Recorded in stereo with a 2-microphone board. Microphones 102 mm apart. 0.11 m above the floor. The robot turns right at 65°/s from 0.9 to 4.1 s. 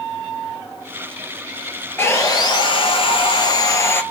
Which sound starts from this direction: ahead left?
Sawing, at 2.0 s.